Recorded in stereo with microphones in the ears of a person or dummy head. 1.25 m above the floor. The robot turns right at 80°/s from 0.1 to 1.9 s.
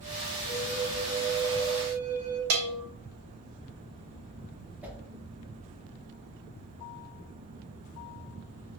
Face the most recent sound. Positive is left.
turn(degrees=-10)  # may be behind; listen again after turning